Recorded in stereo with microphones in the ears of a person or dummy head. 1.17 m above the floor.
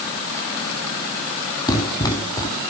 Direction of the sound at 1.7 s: 25° left (ahead or behind).